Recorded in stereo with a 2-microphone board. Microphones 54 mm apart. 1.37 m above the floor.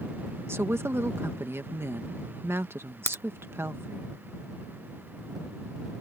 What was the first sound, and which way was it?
A woman speaking, 50° right (ahead or behind).